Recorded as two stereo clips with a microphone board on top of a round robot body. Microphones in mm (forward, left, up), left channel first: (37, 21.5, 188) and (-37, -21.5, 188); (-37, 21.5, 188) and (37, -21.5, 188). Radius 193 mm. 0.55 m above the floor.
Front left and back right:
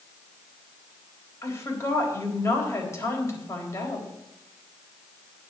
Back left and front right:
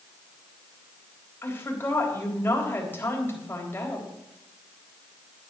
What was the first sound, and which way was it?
A woman speaking, 85° left.